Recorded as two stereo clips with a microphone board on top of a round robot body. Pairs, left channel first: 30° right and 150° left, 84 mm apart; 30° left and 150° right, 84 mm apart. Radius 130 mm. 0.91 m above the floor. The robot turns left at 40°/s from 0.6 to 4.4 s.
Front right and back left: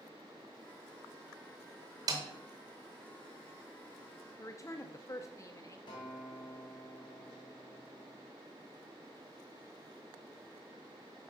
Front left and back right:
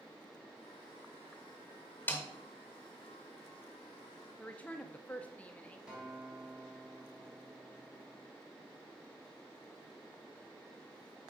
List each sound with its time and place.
2.1 s a snare drum: 100° left, 0.8 m; by 2.2 s 95° left, 0.8 m
4.4 s a woman speaking: 30° right, 0.8 m
5.9 s a guitar: 70° right, 1.5 m